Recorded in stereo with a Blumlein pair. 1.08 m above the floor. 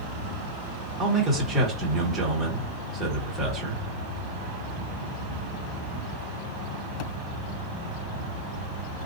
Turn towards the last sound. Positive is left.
turn(degrees=-10)